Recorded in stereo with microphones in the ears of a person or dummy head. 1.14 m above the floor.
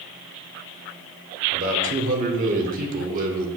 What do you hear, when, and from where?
1.5 s a man speaking: 50° right (ahead or behind), 1.1 m